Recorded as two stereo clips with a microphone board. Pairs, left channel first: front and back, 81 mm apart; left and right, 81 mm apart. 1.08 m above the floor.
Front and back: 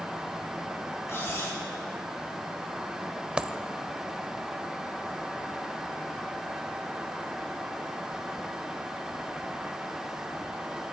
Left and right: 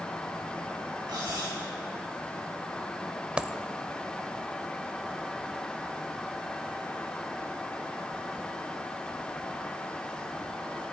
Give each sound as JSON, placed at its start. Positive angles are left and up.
{"t": 1.1, "sound": "cutlery clinking", "azimuth_deg": -60, "distance_m": 6.0}
{"t": 3.4, "sound": "a dropped coin", "azimuth_deg": -125, "distance_m": 0.8}